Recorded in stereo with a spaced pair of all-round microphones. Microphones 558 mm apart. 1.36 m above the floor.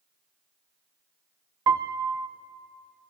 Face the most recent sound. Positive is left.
turn(degrees=-45)  # may be behind; listen again after turning